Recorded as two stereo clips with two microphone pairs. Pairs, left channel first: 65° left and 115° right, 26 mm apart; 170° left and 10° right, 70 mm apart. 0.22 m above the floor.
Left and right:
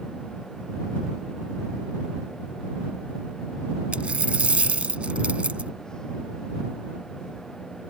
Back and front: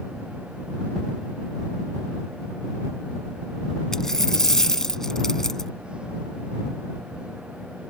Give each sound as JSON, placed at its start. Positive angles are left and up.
{"t": 3.9, "sound": "a dropped coin", "azimuth_deg": -110}